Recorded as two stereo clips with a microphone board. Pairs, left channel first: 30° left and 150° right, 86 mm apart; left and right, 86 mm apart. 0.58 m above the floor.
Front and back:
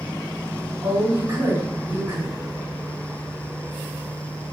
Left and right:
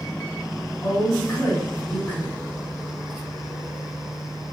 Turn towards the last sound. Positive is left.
turn(degrees=150)